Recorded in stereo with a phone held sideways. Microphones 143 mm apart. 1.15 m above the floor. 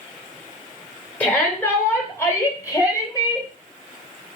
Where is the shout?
15° left (ahead or behind), 3.5 m; by 3.5 s 30° left (ahead or behind), 4 m.